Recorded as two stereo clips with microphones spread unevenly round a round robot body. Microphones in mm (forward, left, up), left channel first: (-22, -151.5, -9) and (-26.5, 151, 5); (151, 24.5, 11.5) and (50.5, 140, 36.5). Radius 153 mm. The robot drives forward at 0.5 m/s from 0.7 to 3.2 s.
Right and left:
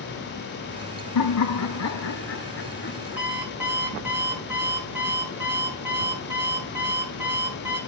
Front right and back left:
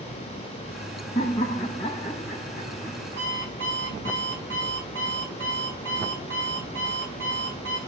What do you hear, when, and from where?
1.1 s laughter: 115° right, 0.9 m; by 3.3 s 150° right, 1.6 m
3.2 s an alarm clock: 175° left, 6.5 m